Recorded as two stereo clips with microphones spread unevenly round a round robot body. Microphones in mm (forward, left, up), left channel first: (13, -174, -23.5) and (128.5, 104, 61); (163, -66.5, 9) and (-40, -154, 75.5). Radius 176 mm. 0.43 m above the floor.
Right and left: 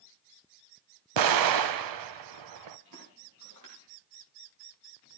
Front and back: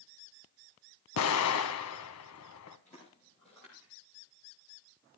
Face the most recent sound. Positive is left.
turn(degrees=115)